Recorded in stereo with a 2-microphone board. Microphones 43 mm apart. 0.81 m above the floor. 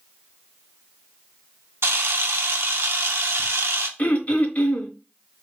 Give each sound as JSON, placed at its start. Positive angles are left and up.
{"t": 1.8, "sound": "a camera shutter", "side_deg": -70, "distance_m": 0.7}
{"t": 4.0, "sound": "throat clearing", "side_deg": 40, "distance_m": 1.0}